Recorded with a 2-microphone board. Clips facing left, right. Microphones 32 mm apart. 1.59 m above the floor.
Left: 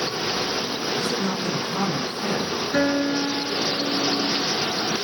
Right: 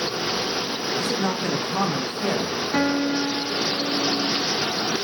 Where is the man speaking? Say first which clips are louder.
Right 1 dB; 65° right (ahead or behind), 1.5 m; by 2.6 s 55° right (ahead or behind), 2 m.